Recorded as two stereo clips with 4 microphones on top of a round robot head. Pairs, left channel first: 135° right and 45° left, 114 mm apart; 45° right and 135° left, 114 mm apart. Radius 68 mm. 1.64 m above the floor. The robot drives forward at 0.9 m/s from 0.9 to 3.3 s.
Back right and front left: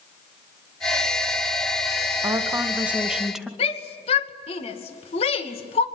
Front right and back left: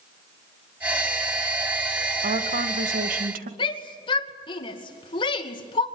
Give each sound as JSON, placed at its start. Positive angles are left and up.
{"t": 2.2, "sound": "a woman speaking", "azimuth_deg": 110, "distance_m": 2.0}
{"t": 3.6, "sound": "a shout", "azimuth_deg": -95, "distance_m": 2.5}